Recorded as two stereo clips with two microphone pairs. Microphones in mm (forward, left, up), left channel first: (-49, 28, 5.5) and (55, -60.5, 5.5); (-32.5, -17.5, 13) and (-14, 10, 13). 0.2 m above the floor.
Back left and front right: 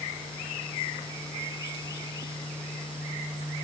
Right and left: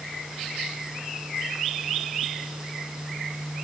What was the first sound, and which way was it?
Only background noise.